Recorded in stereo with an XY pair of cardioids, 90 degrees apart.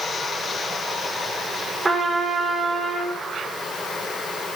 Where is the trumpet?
15° right, 1.9 m.